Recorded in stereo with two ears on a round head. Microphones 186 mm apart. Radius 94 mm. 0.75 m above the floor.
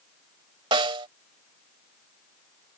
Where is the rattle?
No rattle in this recording.